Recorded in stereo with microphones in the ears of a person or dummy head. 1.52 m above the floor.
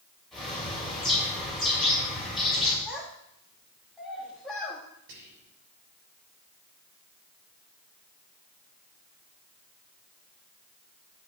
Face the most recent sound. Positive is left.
turn(degrees=-70)  # may be behind; listen again after turning